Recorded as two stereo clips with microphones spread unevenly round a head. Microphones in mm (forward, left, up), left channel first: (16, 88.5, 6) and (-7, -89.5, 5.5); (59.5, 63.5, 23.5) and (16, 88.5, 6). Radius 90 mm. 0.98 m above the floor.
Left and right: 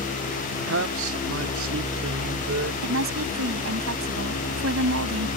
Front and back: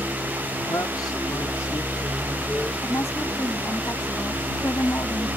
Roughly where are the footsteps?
I don't hear footsteps.